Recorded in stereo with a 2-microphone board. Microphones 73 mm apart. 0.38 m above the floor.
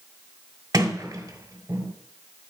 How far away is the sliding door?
About 1.5 m.